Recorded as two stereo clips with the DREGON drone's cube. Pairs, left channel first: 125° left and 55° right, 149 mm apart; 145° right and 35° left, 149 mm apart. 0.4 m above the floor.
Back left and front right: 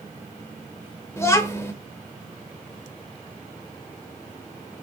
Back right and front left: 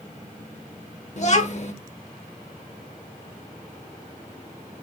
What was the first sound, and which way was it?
A child speaking, 170° right.